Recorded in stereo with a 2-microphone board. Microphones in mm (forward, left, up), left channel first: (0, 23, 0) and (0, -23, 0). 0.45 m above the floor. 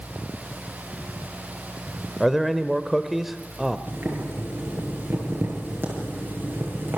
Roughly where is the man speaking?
Centre.